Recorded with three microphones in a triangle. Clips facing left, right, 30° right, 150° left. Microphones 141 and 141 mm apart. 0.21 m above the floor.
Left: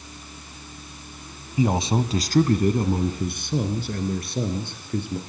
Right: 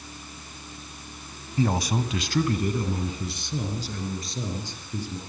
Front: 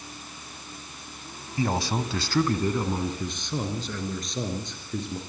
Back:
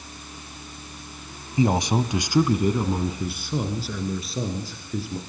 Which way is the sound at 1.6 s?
140° left.